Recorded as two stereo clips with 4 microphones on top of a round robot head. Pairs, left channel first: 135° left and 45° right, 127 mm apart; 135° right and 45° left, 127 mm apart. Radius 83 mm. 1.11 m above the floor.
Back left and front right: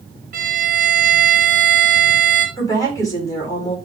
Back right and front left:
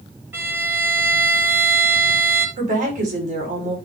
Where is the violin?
30° right, 2.5 m.